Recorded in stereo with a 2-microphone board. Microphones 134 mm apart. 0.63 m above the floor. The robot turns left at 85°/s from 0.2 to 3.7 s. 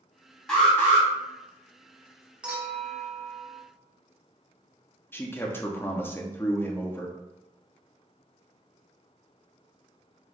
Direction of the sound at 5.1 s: 15° left (ahead or behind).